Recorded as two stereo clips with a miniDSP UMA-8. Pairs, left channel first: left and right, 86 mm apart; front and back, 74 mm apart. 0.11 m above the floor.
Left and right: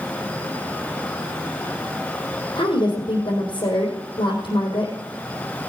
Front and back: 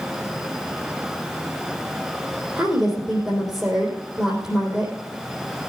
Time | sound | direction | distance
2.5 | a woman speaking | 110° left | 3.5 m